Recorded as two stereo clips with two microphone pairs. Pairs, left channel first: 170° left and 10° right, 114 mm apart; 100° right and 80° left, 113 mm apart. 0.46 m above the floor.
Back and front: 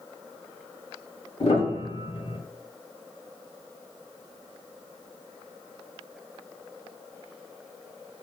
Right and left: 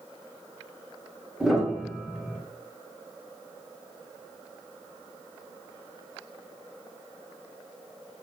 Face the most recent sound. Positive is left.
turn(degrees=165)